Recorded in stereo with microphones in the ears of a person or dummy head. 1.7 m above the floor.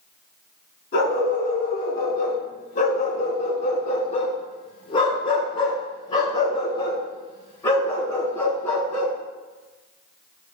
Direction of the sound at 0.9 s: 45° left (ahead or behind).